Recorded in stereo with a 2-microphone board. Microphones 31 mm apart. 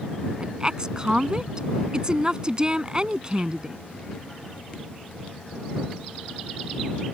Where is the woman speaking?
25° right (ahead or behind).